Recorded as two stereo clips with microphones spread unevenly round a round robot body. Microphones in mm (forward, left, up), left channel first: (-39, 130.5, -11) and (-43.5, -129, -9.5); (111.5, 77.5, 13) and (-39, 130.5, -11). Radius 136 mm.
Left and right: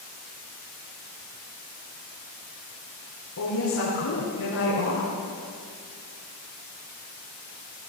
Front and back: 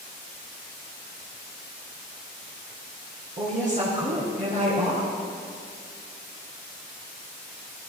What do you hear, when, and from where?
3.4 s a woman speaking: 125° left, 5 m